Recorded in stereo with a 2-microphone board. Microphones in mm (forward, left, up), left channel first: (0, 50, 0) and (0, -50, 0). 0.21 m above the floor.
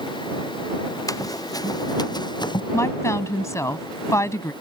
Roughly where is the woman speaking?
Left.